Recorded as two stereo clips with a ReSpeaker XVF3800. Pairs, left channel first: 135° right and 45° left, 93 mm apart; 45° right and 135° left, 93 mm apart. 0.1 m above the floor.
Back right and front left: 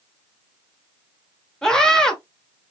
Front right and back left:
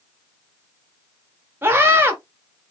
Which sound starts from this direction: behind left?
A scream, at 1.6 s.